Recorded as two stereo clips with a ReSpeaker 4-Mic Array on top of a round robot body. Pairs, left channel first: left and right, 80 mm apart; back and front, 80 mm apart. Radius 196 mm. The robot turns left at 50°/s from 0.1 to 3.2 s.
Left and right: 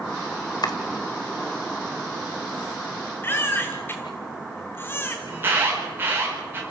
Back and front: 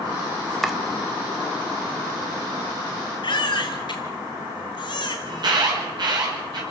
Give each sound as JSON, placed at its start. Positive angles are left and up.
{"t": 0.6, "sound": "chopping", "azimuth_deg": 95, "distance_m": 1.5}
{"t": 3.2, "sound": "a baby crying", "azimuth_deg": 155, "distance_m": 0.7}
{"t": 5.3, "sound": "an alarm", "azimuth_deg": -30, "distance_m": 5.5}